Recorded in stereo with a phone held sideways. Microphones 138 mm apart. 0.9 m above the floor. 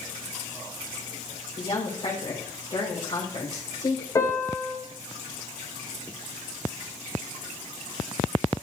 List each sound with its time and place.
1.6 s a woman speaking: 40° left (ahead or behind), 3.5 m
4.2 s a piano: 25° left (ahead or behind), 3.5 m